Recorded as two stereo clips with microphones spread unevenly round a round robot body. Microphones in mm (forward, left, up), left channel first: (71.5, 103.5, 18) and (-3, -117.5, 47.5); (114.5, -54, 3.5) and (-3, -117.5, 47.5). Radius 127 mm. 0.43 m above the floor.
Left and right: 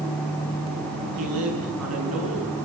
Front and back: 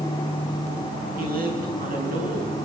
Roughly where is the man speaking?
Behind right.